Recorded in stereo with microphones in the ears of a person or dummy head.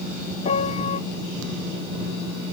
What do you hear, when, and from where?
0.5 s a piano: 35° left (ahead or behind)